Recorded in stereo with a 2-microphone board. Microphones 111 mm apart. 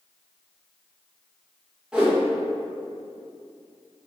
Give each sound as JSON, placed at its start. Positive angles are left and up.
{"t": 1.9, "sound": "a whoosh", "side_deg": -10, "distance_m": 0.9}